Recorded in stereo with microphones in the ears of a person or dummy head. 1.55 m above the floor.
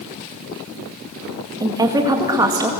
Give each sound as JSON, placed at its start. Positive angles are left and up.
{"t": 1.6, "sound": "a woman speaking", "side_deg": -10, "distance_m": 1.9}